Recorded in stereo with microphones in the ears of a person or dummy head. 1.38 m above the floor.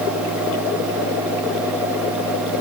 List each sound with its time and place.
Only background noise.